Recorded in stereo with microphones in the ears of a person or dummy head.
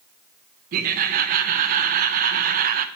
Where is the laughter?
45° right (ahead or behind), 0.7 m.